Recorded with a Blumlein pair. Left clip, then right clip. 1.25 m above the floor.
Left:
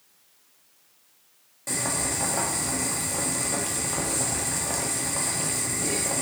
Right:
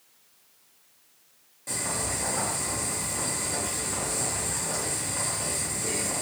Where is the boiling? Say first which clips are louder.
Left 2 dB; 20° left, 0.7 m.